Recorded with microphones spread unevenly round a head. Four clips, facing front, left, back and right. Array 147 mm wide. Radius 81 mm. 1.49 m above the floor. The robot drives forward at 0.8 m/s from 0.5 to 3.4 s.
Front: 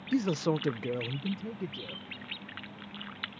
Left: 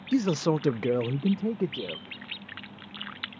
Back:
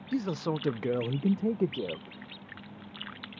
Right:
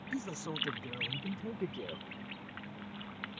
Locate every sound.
0.1 s a man speaking: 60° left; by 2.2 s 160° left